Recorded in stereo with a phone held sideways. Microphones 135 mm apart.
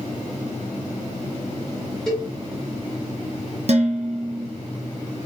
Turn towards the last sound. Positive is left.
turn(degrees=-55)  # may be behind; listen again after turning